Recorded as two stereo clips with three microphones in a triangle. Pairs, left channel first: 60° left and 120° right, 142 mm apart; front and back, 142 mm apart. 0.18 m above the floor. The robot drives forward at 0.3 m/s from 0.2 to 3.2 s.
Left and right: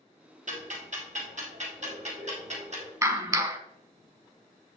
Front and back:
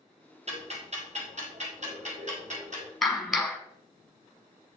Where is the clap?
85° right, 1.1 m; by 3.6 s 95° right, 1.1 m.